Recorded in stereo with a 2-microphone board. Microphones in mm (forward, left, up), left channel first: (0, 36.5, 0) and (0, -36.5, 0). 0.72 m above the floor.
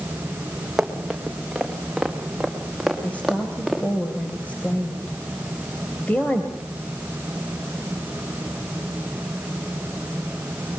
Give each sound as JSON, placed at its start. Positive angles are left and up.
{"t": 0.8, "sound": "running footsteps", "side_deg": -5, "distance_m": 4.0}
{"t": 3.0, "sound": "a woman speaking", "side_deg": 20, "distance_m": 3.0}